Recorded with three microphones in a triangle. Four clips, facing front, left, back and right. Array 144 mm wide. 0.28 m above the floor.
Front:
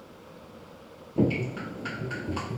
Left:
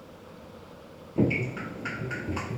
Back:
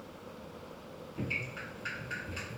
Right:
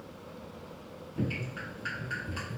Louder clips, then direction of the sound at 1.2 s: Left 9 dB, front 15 dB; 40° left.